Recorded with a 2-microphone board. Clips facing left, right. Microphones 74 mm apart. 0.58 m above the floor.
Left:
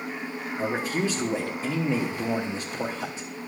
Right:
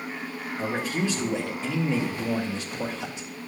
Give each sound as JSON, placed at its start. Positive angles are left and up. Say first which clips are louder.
{"t": 0.6, "sound": "a man speaking", "louder": "left 1 dB", "side_deg": 35, "distance_m": 1.3}